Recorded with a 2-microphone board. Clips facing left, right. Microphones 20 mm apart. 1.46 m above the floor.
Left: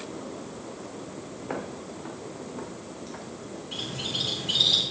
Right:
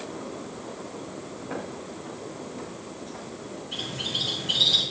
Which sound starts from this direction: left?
Footsteps, at 1.4 s.